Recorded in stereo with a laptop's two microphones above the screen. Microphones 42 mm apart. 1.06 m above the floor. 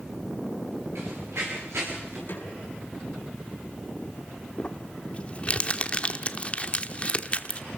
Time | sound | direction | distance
0.9 | running footsteps | 75° right (ahead or behind) | 9 m
2.3 | a snare drum | 45° left (ahead or behind) | 5.5 m
4.6 | crumpling | 30° left (ahead or behind) | 1.0 m